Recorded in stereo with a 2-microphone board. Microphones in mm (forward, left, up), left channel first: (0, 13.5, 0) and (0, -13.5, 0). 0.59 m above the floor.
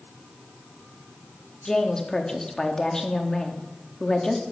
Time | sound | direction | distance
1.6 | a woman speaking | 20° left (ahead or behind) | 1.1 m